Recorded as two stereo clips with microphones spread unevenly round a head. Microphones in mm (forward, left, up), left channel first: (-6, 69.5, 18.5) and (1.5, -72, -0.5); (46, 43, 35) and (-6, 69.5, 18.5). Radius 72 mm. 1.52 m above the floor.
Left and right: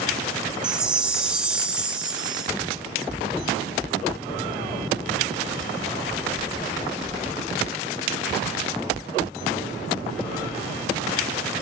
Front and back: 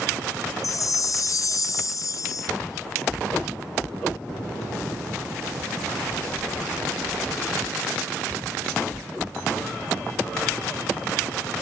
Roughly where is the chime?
Ahead.